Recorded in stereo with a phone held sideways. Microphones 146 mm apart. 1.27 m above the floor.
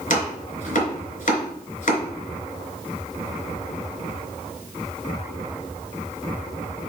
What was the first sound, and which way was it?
Chopping, 55° left (ahead or behind).